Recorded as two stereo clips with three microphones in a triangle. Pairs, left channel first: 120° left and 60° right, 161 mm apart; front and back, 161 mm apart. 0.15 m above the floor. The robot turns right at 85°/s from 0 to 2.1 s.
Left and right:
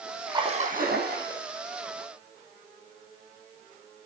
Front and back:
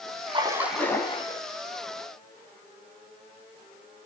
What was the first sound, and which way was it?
A splash, 130° right.